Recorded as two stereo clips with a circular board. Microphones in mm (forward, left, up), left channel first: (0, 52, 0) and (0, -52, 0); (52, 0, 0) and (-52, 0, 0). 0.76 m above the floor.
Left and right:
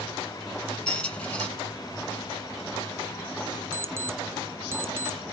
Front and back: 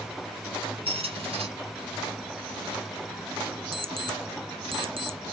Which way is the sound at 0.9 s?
170° left.